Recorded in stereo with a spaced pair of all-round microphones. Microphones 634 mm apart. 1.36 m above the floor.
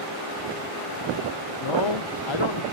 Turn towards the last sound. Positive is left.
turn(degrees=45)  # may be behind; listen again after turning